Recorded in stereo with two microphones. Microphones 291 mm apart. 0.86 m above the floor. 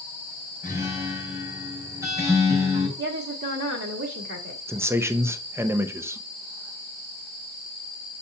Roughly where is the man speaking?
Centre.